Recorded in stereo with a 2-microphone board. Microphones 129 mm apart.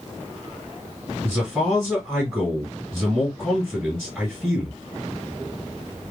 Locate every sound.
1.2 s a man speaking: 5° right (ahead or behind), 1.9 m